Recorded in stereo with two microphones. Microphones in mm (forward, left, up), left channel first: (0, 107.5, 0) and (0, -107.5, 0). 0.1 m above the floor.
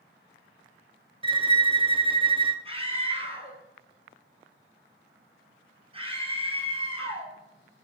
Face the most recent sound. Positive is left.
turn(degrees=-25)  # may be behind; listen again after turning